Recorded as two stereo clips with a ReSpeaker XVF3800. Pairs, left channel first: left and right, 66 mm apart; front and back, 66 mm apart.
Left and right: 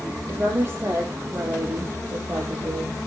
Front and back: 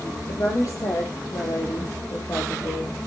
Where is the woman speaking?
35° right, 5.5 m; by 3.0 s 40° right, 4.5 m.